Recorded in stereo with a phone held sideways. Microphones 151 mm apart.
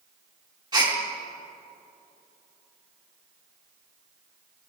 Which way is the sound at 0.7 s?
30° right (ahead or behind).